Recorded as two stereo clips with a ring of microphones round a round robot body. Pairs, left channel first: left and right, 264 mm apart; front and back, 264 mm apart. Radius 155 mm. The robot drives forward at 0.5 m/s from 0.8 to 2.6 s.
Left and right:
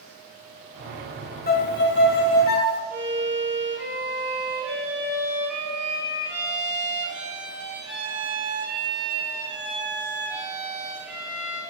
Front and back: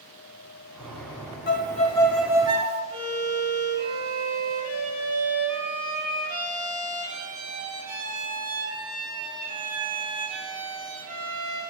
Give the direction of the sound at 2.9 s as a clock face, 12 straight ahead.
6 o'clock.